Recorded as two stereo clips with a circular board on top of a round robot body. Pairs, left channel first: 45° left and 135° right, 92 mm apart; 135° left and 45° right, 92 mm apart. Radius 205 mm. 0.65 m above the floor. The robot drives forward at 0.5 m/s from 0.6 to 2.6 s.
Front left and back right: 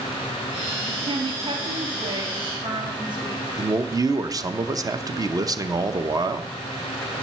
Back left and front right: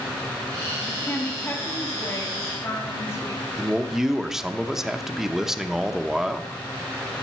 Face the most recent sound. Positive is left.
turn(degrees=-130)